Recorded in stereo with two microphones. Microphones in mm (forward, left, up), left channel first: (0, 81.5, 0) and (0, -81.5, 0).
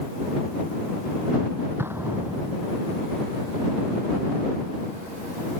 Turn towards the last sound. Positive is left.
turn(degrees=-15)  # may be behind; listen again after turning